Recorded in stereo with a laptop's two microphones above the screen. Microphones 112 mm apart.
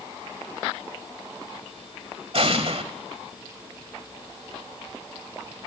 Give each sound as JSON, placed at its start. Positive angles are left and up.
{"t": 2.3, "sound": "an explosion", "side_deg": -55, "distance_m": 1.6}